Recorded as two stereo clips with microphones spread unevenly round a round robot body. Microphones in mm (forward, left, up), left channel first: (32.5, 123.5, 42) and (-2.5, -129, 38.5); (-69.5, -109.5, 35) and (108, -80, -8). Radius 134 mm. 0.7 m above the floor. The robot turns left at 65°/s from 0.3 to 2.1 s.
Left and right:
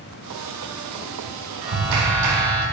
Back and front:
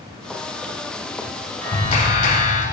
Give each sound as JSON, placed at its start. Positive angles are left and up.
{"t": 1.6, "sound": "a clap", "azimuth_deg": -95, "distance_m": 4.0}